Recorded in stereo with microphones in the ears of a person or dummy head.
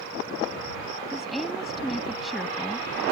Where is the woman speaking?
Centre (ahead or behind).